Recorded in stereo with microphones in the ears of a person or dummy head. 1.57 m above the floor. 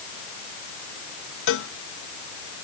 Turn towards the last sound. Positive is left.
turn(degrees=65)  # may be behind; listen again after turning